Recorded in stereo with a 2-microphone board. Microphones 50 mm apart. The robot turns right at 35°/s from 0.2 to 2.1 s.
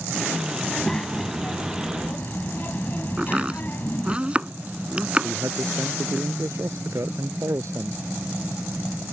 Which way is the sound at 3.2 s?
25° right (ahead or behind).